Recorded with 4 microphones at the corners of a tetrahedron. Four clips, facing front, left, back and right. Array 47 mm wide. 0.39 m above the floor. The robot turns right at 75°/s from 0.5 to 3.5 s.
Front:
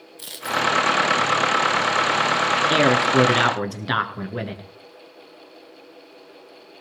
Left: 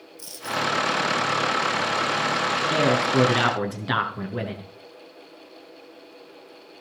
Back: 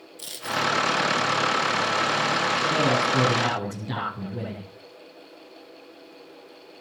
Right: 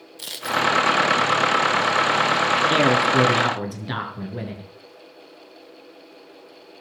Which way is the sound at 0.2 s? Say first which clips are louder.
Right 5 dB, front 4 dB; 85° right.